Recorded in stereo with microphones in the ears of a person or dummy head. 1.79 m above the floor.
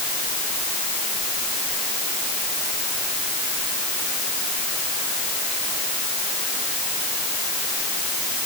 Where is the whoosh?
No whoosh in this recording.